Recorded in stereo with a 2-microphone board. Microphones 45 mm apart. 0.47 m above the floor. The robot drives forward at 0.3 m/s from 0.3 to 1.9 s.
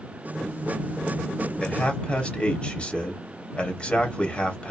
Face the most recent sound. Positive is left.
turn(degrees=25)  # may be behind; listen again after turning